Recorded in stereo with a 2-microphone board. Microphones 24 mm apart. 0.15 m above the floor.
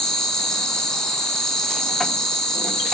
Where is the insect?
30° left (ahead or behind), 1.7 m.